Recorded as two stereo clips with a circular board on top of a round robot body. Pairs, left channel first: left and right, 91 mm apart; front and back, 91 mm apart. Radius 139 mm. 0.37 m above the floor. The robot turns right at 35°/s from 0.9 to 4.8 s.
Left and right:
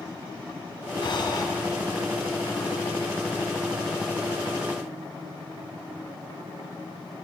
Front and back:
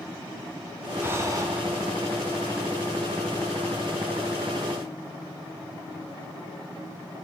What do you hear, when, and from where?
1.0 s breathing: 115° left, 1.0 m; by 1.5 s 130° left, 1.0 m